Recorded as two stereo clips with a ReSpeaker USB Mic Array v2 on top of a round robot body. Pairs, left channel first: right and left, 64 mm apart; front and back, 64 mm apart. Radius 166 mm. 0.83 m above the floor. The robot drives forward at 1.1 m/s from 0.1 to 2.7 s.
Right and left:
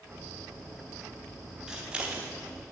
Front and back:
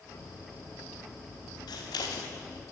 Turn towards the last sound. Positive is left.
turn(degrees=110)